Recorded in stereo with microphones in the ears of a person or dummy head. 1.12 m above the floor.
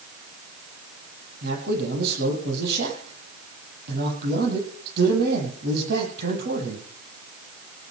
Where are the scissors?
No scissors in this recording.